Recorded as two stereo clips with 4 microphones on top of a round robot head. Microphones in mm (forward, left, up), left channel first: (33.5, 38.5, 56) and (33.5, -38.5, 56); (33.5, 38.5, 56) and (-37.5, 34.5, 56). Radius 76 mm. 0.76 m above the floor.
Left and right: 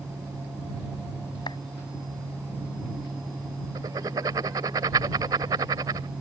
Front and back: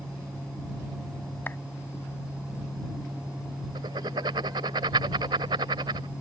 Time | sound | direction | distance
1.5 | a clap | 65° left | ?
3.8 | writing | 140° right | ?